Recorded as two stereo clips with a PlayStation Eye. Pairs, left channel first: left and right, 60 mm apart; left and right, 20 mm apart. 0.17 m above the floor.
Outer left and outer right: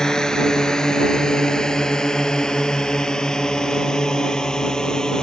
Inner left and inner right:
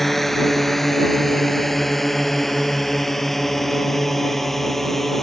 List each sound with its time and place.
0.0 s a drone: 10° left (ahead or behind)